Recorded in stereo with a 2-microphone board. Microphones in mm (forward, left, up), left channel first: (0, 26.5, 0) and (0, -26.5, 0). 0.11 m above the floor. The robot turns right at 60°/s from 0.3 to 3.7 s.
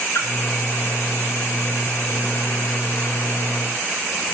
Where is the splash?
60° left (ahead or behind), 7 m.